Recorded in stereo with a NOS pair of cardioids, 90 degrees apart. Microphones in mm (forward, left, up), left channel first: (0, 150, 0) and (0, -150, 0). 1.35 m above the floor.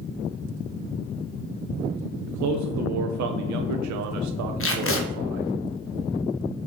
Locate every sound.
2.3 s a man speaking: 70° right, 0.8 m
4.6 s tape being pulled: 45° left, 1.2 m